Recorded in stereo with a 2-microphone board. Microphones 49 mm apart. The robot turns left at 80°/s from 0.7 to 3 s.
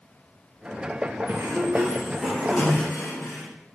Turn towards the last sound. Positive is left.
turn(degrees=120)